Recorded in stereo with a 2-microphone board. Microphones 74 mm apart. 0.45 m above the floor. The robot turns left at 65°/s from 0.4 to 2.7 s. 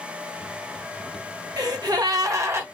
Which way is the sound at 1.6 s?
75° right.